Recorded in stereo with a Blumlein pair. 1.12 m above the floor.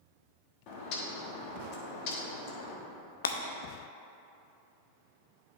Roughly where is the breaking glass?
Ahead left.